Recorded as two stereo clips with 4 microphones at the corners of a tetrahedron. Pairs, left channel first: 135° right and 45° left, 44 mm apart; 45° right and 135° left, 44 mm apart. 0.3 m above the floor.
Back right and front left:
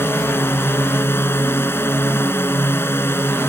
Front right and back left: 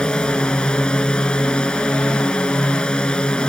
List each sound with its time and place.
0.0 s a drone: 110° right